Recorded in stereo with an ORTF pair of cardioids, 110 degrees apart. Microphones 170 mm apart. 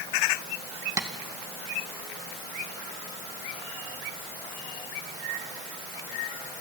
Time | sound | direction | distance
1.0 | tapping | 20° right | 2 m